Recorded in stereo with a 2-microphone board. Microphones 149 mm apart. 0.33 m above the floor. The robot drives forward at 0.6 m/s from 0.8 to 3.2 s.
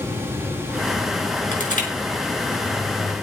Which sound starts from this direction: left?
Crushing, at 1.5 s.